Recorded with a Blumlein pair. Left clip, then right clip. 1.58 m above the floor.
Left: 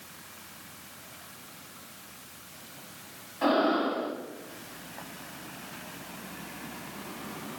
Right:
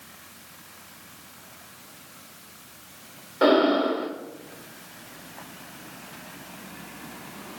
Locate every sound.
3.4 s breathing: 55° right, 1.0 m